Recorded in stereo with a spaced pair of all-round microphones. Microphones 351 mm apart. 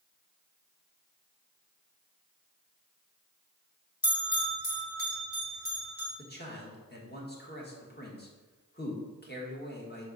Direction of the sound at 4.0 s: 85° left.